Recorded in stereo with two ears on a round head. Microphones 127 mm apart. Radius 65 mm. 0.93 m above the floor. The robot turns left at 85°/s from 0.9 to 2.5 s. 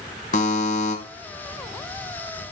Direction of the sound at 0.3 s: 55° left (ahead or behind).